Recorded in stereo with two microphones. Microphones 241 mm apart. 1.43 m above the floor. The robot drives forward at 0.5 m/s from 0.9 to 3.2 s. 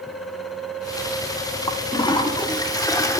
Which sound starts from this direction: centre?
A toilet flushing, at 1.7 s.